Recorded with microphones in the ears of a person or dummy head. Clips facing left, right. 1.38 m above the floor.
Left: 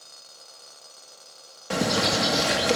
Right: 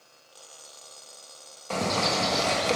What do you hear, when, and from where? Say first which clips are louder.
1.7 s a bird: left 3 dB; 15° left (ahead or behind), 1.0 m